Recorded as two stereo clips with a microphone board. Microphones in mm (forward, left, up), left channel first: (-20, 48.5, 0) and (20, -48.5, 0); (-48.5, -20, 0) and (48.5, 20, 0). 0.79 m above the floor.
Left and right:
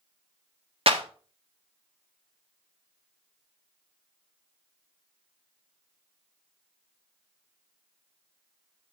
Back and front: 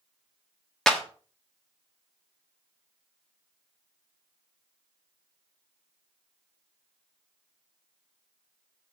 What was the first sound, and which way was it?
A clap, 75° right.